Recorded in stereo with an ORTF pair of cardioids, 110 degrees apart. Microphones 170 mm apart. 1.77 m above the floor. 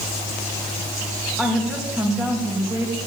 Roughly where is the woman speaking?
Ahead.